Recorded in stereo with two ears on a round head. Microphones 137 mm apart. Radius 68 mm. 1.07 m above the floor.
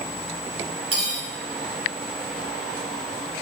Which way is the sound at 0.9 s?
40° right (ahead or behind).